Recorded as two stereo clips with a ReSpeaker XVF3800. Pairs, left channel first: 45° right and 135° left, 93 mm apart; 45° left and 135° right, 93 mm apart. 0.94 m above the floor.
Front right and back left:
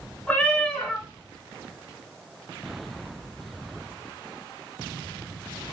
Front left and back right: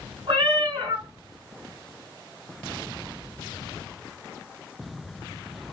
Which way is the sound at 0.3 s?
120° right.